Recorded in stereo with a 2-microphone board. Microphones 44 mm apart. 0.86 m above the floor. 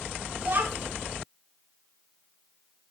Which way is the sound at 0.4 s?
45° right (ahead or behind).